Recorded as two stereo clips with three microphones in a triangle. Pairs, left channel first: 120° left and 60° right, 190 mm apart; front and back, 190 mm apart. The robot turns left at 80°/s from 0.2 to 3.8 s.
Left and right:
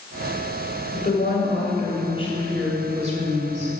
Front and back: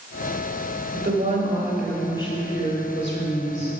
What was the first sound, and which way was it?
A woman speaking, 165° left.